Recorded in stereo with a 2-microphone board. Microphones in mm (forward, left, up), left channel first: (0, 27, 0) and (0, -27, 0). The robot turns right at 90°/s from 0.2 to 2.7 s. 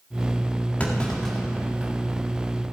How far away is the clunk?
About 1.4 m.